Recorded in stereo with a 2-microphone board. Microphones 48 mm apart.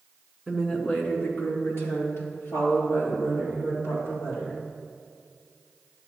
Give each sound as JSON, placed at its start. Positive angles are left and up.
{"t": 0.5, "sound": "a woman speaking", "side_deg": 10, "distance_m": 1.3}